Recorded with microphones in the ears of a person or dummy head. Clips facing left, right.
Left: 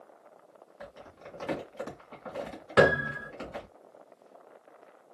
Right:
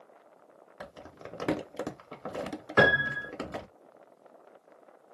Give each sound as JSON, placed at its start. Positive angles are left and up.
{"t": 0.8, "sound": "crumpling", "side_deg": -65, "distance_m": 0.9}
{"t": 2.8, "sound": "a piano", "side_deg": 40, "distance_m": 1.6}